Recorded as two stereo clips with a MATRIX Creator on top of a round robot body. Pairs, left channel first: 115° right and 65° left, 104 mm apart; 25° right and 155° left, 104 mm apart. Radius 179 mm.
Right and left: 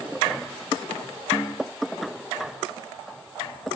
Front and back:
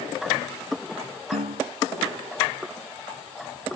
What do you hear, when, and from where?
1.3 s a snare drum: 175° left